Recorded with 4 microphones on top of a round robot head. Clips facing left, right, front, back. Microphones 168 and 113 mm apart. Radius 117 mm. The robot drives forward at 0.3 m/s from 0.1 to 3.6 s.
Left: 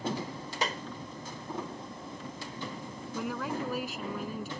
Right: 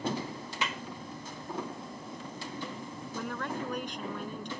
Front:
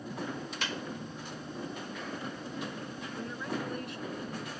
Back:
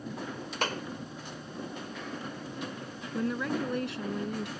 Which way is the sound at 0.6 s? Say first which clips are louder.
Left 3 dB, back 7 dB; 140° left.